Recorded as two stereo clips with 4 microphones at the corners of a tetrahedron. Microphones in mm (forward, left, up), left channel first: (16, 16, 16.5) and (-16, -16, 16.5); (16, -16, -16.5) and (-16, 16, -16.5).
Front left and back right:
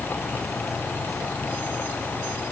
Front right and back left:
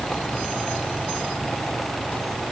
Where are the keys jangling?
I don't hear keys jangling.